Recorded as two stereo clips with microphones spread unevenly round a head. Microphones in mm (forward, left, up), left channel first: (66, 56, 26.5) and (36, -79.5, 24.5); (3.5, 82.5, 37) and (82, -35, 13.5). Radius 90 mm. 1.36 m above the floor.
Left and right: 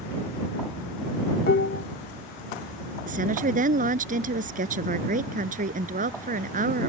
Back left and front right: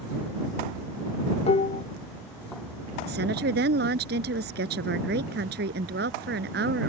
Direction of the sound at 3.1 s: 75° right.